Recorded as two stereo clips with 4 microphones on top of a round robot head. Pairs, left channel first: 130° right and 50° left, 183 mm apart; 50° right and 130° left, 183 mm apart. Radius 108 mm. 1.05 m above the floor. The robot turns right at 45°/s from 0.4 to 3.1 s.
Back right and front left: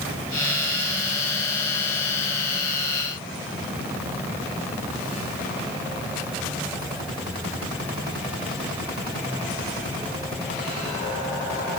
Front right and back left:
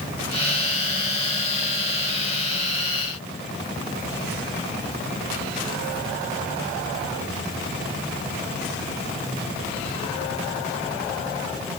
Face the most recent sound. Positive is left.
No sound to turn to.